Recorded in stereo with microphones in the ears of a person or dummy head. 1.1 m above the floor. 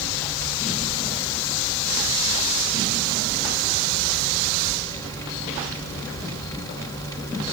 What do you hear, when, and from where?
Only background noise.